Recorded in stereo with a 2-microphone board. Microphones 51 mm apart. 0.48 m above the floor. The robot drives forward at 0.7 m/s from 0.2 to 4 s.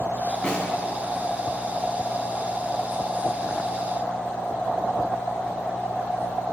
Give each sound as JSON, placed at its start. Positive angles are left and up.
{"t": 0.4, "sound": "a snare drum", "side_deg": 25, "distance_m": 1.6}